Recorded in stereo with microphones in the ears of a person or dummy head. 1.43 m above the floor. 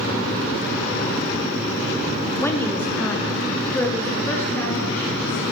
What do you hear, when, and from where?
2.4 s a woman speaking: 10° left (ahead or behind), 0.9 m